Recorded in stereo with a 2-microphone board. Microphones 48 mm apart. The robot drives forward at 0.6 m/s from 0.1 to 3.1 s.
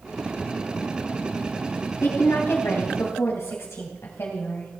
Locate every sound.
2.0 s a woman speaking: 60° left (ahead or behind), 3 m; by 4.7 s 70° left (ahead or behind), 2.5 m